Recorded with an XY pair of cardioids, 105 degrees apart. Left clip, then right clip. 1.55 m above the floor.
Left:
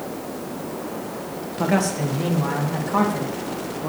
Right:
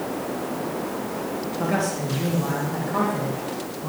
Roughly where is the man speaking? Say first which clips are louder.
Left 4 dB; ahead left.